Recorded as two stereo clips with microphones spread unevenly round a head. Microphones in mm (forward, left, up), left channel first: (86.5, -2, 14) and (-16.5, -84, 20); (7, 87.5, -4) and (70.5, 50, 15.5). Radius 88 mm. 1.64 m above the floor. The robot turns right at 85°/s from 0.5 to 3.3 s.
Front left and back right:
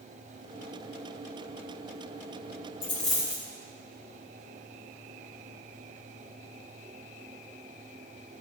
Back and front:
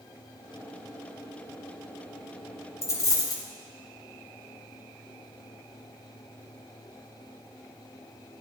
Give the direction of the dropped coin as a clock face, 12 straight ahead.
9 o'clock.